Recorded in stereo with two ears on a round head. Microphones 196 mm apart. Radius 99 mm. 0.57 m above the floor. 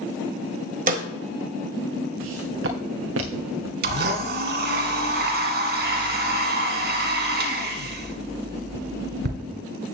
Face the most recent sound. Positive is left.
turn(degrees=-50)  # may be behind; listen again after turning